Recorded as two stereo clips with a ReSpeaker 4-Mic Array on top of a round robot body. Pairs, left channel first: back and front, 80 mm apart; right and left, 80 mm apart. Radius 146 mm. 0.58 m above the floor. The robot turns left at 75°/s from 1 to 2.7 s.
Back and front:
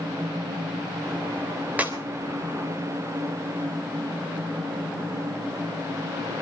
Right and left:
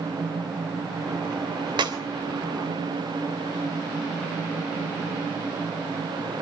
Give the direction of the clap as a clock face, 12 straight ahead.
10 o'clock.